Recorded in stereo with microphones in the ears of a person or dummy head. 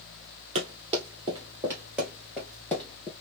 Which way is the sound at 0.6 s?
30° right (ahead or behind).